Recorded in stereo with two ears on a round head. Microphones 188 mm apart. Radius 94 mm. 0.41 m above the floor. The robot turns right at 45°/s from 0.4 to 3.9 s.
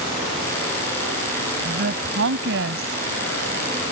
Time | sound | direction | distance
1.6 | a woman speaking | 125° right | ?